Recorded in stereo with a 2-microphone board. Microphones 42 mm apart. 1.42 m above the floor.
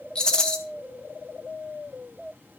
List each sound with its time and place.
0.1 s a rattle: 15° left (ahead or behind), 1.5 m